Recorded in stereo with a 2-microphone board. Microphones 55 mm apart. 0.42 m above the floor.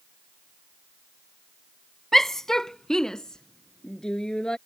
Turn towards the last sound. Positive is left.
turn(degrees=15)  # may be behind; listen again after turning